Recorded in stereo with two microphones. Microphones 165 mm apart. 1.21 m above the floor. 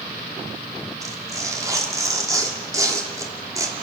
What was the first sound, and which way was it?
Tearing paper, 20° right (ahead or behind).